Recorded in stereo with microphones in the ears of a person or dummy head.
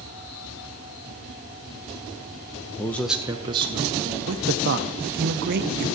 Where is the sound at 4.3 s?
55° right (ahead or behind), 0.6 m.